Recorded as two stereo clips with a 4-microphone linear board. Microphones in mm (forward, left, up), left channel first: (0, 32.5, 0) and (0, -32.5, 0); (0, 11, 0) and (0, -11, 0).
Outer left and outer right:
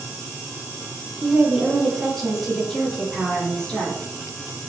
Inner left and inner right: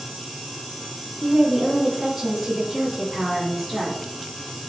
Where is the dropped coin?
I don't hear a dropped coin.